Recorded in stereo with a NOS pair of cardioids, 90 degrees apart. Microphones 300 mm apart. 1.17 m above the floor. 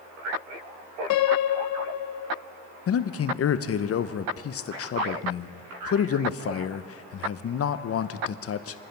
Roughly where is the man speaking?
Ahead left.